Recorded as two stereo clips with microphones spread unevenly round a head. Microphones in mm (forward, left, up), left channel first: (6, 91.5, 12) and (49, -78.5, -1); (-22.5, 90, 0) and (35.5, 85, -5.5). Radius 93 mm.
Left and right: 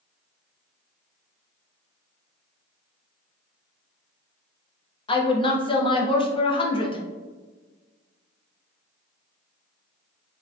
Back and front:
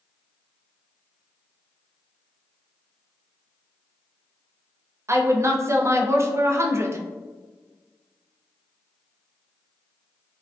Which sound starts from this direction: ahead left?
A woman speaking, at 5.1 s.